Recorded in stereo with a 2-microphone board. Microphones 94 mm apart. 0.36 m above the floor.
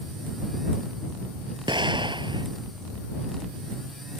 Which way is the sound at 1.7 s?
55° right (ahead or behind).